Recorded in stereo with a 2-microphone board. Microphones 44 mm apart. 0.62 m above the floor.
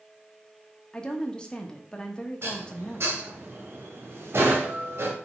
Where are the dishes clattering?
65° right (ahead or behind), 1.8 m.